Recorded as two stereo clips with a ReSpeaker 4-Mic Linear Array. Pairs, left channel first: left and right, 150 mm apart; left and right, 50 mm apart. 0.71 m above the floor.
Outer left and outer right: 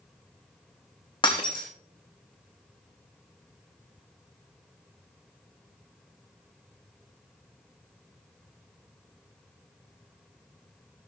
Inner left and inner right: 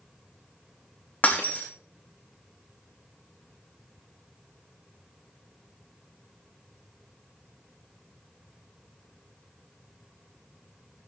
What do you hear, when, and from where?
1.2 s breaking glass: 35° left (ahead or behind), 4.5 m